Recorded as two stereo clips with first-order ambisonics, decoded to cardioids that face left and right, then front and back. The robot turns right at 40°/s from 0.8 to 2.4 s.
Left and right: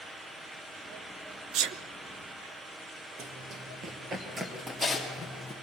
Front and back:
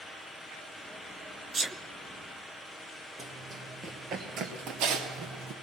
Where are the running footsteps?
95° right, 2.5 m; by 5.5 s 170° left, 3 m.